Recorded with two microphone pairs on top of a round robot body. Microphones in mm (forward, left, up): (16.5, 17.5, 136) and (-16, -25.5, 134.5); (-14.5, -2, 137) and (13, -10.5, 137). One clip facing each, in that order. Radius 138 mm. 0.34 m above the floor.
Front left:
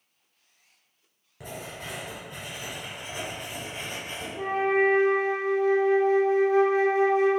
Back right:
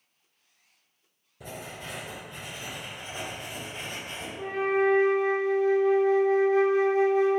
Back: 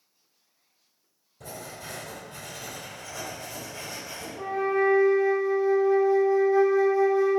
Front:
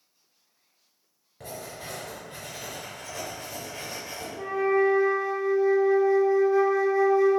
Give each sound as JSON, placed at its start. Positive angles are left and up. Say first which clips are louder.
{"t": 1.4, "sound": "writing", "louder": "front left 1 dB, front 1 dB", "azimuth_deg": 30, "distance_m": 1.4}
{"t": 4.3, "sound": "a flute", "louder": "front left 2 dB, front 2 dB", "azimuth_deg": 70, "distance_m": 1.4}